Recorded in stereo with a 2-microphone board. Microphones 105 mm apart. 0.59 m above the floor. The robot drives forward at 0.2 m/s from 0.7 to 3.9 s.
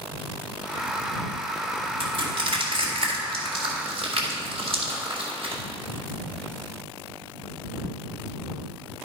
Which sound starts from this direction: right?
Crushing, at 2.0 s.